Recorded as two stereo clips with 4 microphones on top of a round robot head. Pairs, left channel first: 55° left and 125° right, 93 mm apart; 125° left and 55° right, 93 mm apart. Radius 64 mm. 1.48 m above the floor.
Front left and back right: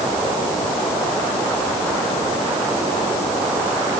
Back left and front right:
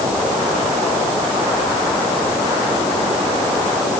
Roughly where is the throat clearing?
No throat clearing in this recording.